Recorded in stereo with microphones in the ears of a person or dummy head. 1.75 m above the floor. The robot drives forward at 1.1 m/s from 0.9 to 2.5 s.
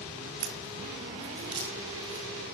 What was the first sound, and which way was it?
A crack, 40° right (ahead or behind).